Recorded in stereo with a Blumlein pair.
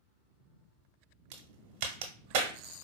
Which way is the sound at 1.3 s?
50° right.